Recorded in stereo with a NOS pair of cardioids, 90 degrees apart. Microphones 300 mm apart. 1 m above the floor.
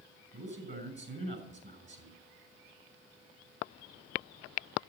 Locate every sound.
0.3 s a man speaking: 40° right, 7 m